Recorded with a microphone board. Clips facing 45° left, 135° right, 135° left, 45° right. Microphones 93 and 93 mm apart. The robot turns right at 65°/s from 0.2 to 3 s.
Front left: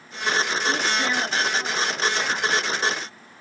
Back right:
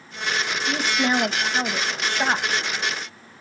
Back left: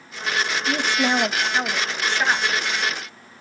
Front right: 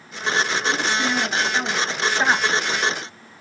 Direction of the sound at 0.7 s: 140° left.